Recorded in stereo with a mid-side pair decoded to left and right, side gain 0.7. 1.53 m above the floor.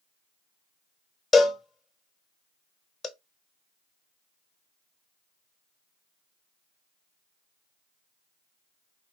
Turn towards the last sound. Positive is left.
turn(degrees=25)